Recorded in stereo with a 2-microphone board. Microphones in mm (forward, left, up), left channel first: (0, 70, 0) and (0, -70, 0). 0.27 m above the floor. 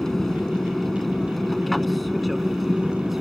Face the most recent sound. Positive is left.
turn(degrees=0)  # may be behind; listen again after turning